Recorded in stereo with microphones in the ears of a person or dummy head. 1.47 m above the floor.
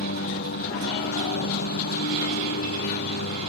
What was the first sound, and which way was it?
A lawn mower, 50° left (ahead or behind).